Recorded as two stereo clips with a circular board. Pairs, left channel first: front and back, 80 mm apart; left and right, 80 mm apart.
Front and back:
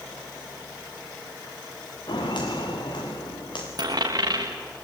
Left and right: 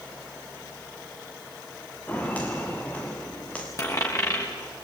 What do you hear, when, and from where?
2.1 s footsteps: 15° left, 3.5 m
3.8 s a dropped coin: 140° left, 5.5 m